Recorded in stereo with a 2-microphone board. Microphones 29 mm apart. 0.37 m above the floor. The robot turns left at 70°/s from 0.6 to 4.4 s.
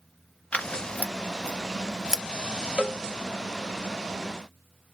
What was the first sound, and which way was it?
Scissors, 55° left (ahead or behind).